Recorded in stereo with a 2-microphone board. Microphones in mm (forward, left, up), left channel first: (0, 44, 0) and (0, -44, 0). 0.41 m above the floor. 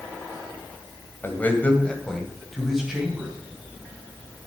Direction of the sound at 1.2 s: 25° left (ahead or behind).